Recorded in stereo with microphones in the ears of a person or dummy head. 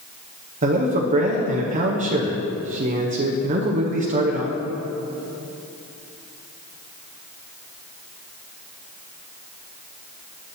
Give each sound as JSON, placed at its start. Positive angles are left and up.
{"t": 0.6, "sound": "a man speaking", "side_deg": -35, "distance_m": 0.6}